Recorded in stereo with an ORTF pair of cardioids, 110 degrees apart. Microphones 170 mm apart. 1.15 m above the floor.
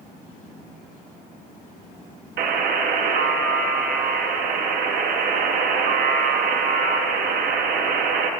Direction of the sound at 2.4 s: 65° right.